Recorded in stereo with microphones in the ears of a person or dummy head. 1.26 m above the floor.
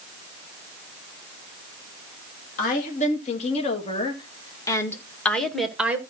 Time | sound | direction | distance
2.6 | a woman speaking | 45° left (ahead or behind) | 2.5 m